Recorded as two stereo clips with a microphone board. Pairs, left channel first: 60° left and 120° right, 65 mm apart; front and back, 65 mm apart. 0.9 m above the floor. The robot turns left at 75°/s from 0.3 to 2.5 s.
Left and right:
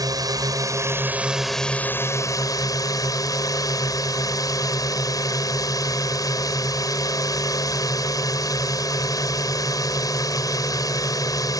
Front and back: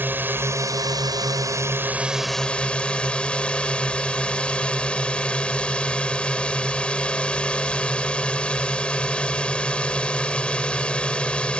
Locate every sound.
0.0 s a drone: 120° right; by 11.6 s 75° left